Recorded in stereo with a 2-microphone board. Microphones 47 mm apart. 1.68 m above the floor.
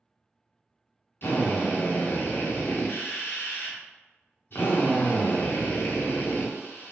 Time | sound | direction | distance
1.2 | a drill | 50° left (ahead or behind) | 0.9 m